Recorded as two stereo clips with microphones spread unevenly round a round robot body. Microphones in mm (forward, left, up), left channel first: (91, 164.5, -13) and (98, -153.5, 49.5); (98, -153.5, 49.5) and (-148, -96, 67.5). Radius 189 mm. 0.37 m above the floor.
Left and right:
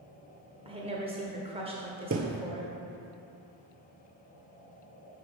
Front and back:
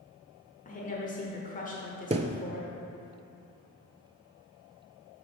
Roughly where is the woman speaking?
Ahead.